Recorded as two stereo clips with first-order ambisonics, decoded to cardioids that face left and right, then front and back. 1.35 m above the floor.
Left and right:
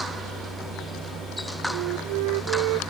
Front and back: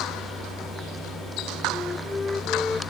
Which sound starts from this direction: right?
A flute, at 1.7 s.